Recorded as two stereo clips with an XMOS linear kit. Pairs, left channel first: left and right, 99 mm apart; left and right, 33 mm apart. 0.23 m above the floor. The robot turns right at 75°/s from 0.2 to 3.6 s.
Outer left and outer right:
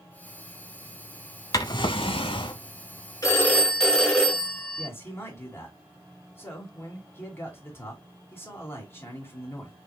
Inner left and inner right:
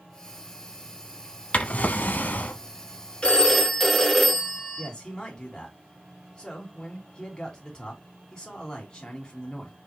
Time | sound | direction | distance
1.5 | a drawer | 45° left | 0.6 m
3.2 | a phone ringing | 35° left (ahead or behind) | 1.7 m
4.8 | a man speaking | 25° left (ahead or behind) | 2.5 m